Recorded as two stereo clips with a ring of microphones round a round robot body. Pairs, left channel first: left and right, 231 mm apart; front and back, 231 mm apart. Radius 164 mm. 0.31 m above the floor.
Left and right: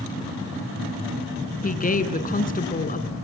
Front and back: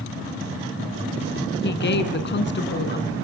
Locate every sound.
1.6 s a woman speaking: 40° left, 3 m